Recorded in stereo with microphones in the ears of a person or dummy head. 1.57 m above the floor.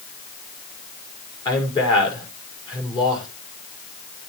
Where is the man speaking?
25° left (ahead or behind), 5.5 m.